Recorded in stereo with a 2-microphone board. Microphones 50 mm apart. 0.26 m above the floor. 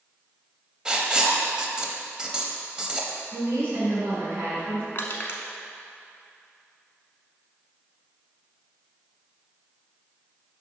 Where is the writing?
15° right (ahead or behind), 0.7 m.